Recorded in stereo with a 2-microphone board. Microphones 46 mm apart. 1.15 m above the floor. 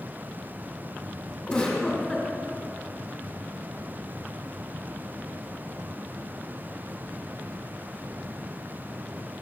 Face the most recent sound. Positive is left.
turn(degrees=15)  # may be behind; listen again after turning